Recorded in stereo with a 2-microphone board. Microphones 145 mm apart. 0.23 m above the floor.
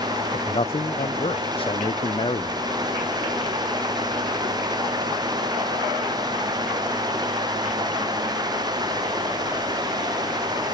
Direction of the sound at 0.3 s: 40° left (ahead or behind).